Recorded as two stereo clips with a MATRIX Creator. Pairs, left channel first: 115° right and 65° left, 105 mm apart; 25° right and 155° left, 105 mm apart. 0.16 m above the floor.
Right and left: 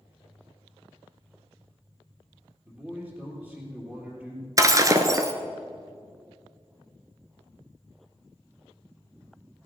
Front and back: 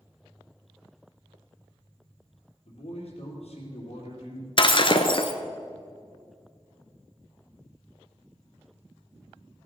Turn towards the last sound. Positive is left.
turn(degrees=10)